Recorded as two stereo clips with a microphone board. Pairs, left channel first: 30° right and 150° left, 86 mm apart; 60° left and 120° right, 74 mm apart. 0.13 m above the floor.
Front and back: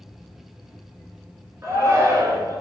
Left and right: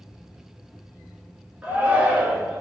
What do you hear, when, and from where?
1.6 s a shout: straight behind, 1.3 m